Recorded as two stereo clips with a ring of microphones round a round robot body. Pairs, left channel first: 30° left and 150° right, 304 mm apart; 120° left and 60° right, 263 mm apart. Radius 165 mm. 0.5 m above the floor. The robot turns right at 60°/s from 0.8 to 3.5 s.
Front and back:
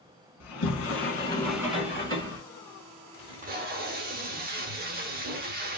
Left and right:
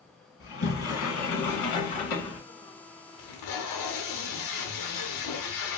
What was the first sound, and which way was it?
A sliding door, 75° left.